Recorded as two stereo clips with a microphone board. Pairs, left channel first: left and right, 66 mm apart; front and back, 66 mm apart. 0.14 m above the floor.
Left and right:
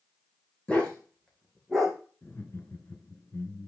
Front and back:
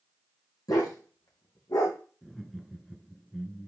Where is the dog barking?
20° left, 2.5 m; by 2.0 s straight ahead, 3.5 m.